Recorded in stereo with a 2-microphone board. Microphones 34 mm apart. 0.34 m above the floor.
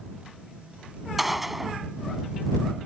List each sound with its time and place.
1.2 s a gunshot: 5° right (ahead or behind)